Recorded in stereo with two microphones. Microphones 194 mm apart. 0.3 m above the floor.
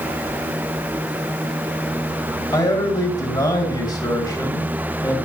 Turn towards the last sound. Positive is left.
turn(degrees=20)  # may be behind; listen again after turning